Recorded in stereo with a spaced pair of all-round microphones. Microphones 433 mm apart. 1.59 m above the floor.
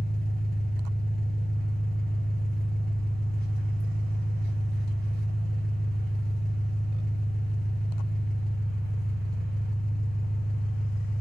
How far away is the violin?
No violin in this recording.